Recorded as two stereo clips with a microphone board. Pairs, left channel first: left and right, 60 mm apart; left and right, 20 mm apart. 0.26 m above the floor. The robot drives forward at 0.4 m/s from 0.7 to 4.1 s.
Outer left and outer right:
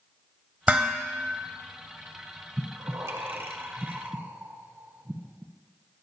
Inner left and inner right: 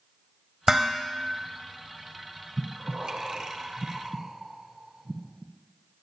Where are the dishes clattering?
20° right (ahead or behind), 0.7 m; by 1.2 s 25° right (ahead or behind), 0.6 m.